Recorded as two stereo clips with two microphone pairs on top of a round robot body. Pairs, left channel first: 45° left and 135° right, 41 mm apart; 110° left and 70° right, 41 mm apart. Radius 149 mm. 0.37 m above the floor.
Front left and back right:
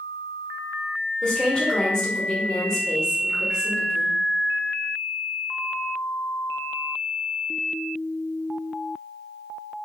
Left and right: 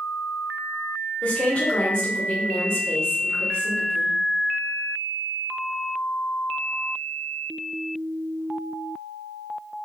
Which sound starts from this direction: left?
A woman speaking, at 1.2 s.